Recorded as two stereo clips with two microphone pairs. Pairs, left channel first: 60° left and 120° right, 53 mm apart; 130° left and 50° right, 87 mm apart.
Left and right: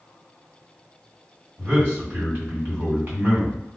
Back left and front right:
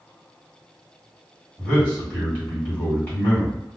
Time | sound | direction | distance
1.6 | a man speaking | 165° right | 1.9 m